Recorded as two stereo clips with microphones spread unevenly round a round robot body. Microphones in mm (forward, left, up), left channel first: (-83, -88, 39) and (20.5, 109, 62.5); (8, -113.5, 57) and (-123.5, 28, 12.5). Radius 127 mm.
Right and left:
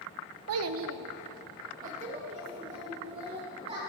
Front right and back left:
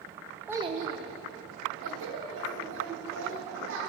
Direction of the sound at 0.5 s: 55° left.